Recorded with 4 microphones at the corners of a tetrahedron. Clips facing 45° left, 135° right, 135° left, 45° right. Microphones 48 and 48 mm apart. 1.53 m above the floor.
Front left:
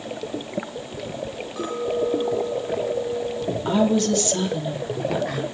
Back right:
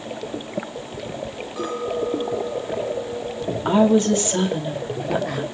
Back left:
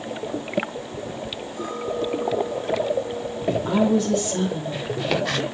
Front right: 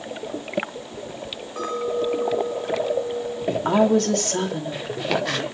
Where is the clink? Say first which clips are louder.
Front left 1 dB, front right 3 dB; 50° right, 5.5 m.